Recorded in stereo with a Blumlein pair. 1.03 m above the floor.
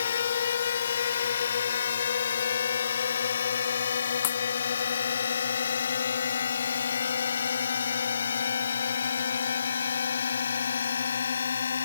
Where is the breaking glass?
50° left.